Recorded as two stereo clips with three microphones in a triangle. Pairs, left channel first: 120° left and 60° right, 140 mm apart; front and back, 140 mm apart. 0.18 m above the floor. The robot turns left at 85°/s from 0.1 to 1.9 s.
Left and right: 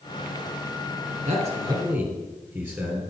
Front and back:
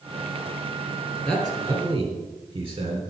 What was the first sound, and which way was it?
A man speaking, 75° right.